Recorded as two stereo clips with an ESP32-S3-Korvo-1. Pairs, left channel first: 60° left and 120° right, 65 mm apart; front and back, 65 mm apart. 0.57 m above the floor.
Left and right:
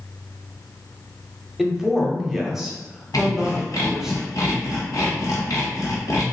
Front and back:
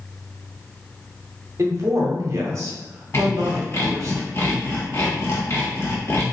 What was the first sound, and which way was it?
A man speaking, 155° left.